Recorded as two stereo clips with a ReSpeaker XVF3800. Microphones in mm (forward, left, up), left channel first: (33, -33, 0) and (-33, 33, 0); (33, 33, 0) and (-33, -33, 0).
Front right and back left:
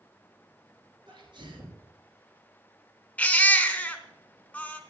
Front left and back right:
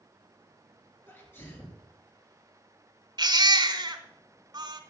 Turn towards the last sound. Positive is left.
turn(degrees=-115)